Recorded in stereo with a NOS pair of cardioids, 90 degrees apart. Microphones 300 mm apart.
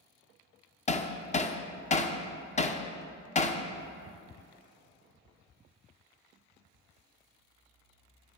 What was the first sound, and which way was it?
Hammering, 25° left.